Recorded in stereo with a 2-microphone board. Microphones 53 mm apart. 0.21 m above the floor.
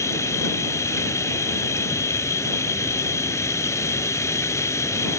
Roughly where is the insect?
Left.